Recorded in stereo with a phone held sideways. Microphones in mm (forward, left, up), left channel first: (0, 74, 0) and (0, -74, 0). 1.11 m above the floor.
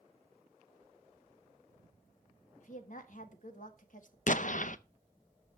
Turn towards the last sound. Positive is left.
turn(degrees=60)  # may be behind; listen again after turning